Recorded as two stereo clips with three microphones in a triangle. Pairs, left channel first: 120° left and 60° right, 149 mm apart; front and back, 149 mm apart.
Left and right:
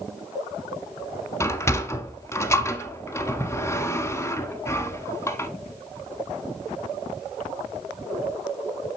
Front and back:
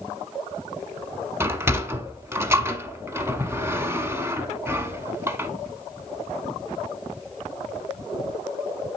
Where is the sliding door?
145° left, 0.9 m.